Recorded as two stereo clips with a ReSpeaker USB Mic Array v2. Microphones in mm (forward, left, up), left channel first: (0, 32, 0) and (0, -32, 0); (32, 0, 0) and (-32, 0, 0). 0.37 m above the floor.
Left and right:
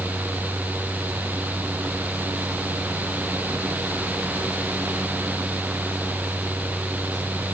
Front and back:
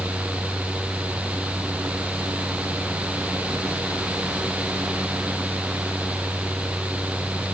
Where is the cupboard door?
I don't hear a cupboard door.